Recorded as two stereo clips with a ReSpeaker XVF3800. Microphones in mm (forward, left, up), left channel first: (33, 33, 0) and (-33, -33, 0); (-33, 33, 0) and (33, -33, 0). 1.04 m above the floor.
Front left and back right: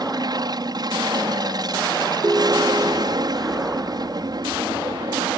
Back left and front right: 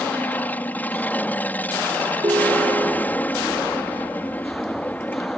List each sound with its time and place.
0.0 s an aircraft: 160° right
2.2 s a ringtone: 75° right